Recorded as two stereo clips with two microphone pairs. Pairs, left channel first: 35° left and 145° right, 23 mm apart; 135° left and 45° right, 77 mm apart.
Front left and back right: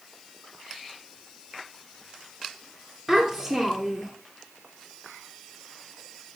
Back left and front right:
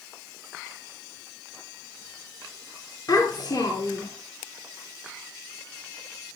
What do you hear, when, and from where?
3.1 s a child speaking: 120° left, 1.7 m